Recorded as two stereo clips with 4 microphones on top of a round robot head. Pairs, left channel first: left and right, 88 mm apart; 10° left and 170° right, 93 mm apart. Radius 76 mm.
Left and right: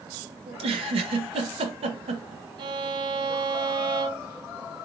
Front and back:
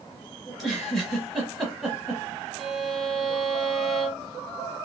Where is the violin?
85° right, 0.8 m.